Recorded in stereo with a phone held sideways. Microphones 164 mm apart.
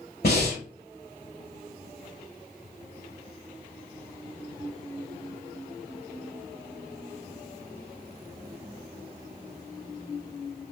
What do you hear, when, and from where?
0.2 s breathing: 70° left (ahead or behind), 1.9 m